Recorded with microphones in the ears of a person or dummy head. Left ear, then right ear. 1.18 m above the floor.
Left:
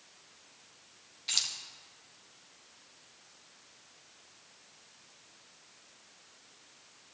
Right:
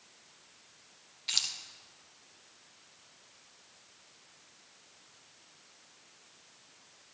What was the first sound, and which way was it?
Keys jangling, 5° right (ahead or behind).